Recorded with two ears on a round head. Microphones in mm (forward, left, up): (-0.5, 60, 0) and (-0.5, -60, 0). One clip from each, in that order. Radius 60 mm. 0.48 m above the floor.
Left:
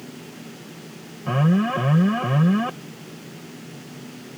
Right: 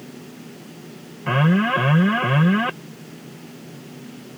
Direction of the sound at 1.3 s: 55° right (ahead or behind).